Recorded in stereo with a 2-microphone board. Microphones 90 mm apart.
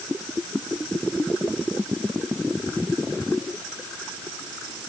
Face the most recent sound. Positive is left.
No sound to turn to.